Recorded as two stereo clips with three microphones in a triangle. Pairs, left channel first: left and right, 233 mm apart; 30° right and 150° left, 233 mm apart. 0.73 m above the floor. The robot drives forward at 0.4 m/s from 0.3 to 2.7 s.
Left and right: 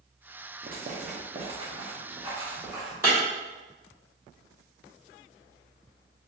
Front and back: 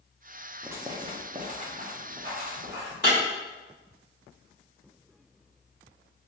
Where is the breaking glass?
165° right, 2.0 m.